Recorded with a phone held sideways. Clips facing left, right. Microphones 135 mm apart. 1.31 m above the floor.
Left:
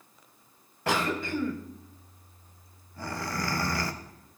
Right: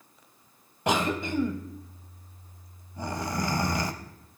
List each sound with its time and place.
0.9 s a cough: 20° right (ahead or behind), 0.6 m